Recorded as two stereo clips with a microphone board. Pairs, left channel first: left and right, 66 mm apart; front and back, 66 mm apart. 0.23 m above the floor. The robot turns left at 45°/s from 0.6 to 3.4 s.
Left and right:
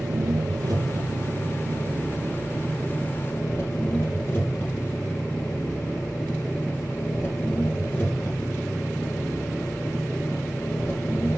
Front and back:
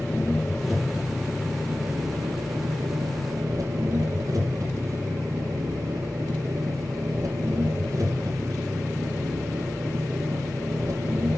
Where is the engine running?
85° right, 3.5 m; by 11.4 s 150° left, 3.5 m.